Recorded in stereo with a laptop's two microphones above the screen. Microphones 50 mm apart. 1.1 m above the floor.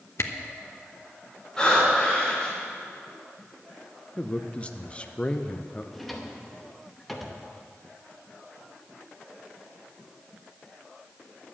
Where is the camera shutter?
60° left (ahead or behind), 0.9 m.